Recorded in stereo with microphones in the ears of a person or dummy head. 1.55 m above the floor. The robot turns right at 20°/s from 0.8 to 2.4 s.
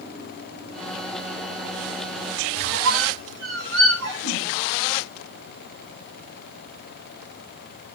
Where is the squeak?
75° right (ahead or behind), 4.5 m.